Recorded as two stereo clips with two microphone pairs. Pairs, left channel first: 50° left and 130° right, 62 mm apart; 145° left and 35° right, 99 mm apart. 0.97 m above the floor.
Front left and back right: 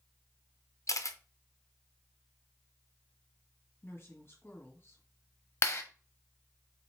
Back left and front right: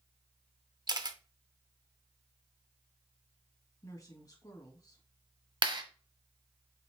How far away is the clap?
About 1.1 m.